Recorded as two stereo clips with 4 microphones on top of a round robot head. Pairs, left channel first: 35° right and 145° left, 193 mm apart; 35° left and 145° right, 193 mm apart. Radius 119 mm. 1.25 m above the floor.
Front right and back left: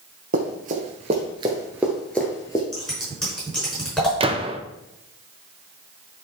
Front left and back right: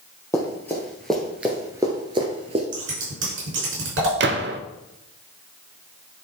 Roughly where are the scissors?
Behind right.